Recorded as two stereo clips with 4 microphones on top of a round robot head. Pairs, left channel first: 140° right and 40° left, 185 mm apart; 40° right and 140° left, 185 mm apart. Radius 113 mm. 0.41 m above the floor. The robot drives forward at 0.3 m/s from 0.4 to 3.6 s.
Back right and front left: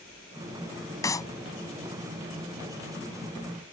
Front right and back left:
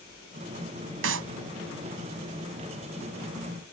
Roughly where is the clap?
Behind left.